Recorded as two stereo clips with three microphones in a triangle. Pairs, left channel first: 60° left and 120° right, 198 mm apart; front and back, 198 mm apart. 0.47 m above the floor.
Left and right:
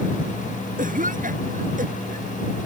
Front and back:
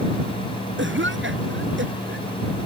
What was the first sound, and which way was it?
A cough, 165° right.